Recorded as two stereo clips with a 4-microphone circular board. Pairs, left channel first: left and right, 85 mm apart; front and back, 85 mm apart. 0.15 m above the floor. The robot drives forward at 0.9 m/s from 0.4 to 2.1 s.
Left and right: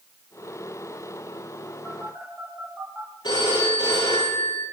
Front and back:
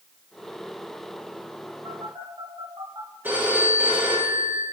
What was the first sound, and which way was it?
A phone buzzing, 160° right.